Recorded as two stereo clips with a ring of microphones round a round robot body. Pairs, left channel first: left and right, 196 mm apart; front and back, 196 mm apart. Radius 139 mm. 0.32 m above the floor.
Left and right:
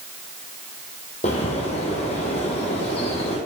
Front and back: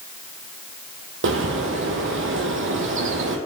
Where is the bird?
160° left, 2.0 m.